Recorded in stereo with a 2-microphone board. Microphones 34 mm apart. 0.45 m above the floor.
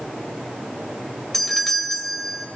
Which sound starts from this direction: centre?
A doorbell, at 1.3 s.